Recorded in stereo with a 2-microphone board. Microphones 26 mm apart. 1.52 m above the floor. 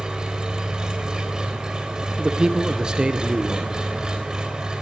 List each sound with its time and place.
0.0 s an engine running: 25° right (ahead or behind), 3.5 m
2.2 s a man speaking: 30° right (ahead or behind), 1.3 m